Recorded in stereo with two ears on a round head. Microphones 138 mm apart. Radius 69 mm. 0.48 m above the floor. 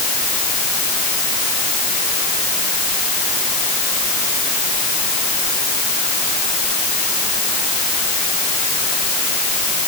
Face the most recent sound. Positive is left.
No sound to turn to.